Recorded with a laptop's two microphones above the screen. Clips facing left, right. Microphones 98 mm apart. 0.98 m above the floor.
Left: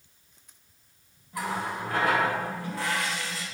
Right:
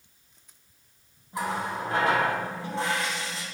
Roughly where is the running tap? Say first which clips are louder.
Right 1 dB; right.